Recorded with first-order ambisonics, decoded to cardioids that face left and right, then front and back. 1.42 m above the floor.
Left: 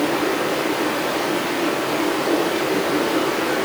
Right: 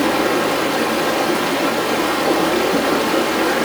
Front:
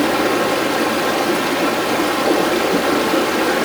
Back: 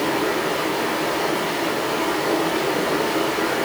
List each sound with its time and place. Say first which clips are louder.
0.0 s running water: right 4 dB, front 5 dB; 30° right, 1.8 m